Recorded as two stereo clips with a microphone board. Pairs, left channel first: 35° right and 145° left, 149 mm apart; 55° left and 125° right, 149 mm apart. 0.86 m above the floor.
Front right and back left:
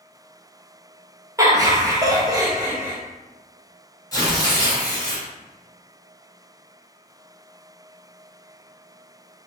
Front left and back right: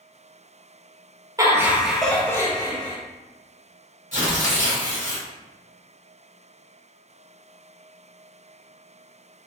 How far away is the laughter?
About 0.9 m.